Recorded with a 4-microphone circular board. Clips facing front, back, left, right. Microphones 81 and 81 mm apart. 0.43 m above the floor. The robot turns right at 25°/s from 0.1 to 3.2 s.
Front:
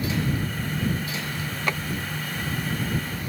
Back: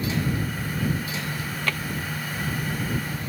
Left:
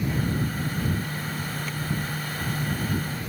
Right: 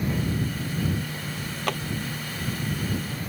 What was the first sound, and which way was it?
A drawer, 70° right.